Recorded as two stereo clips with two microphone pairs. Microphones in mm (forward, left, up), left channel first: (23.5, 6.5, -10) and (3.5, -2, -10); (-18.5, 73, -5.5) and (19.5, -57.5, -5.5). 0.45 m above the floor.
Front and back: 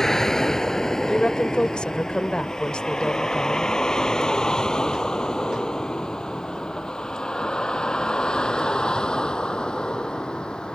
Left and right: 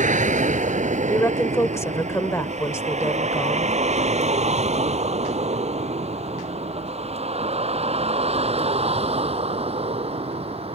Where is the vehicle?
50° right; by 10.8 s 30° right.